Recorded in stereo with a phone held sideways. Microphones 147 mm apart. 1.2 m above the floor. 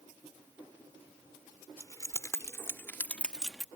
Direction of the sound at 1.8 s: 25° left (ahead or behind).